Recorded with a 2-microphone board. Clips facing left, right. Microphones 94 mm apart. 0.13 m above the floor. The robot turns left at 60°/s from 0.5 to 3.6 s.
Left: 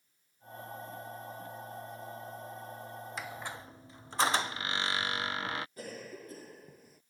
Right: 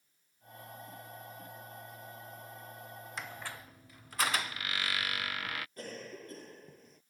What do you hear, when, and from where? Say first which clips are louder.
3.2 s a squeak: left 1 dB; centre (ahead or behind); by 5.7 s 25° left (ahead or behind)
5.8 s a cough: left 1 dB; 5° left (ahead or behind)